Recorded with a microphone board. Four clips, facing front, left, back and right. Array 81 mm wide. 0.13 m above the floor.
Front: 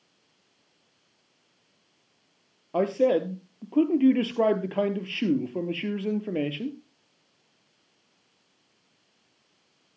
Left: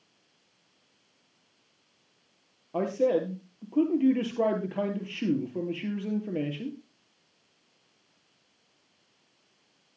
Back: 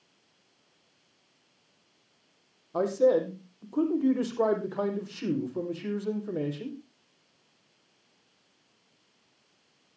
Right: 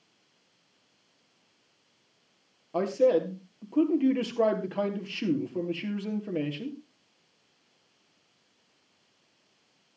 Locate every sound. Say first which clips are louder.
2.7 s a man speaking: right 2 dB, front 1 dB; 5° right, 3 m